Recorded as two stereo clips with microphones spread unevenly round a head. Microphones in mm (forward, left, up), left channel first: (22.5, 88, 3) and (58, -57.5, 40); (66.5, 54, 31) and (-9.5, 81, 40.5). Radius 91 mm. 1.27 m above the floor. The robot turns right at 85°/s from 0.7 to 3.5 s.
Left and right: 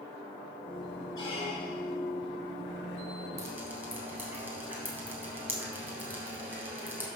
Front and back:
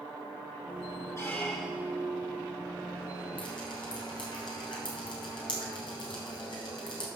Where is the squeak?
35° left, 3 m; by 2.0 s 110° left, 3 m.